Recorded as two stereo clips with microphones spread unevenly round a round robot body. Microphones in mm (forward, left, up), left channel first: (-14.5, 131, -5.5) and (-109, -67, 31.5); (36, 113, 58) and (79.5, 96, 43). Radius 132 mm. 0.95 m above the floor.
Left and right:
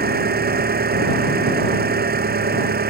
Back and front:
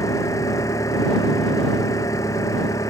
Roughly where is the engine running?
Behind.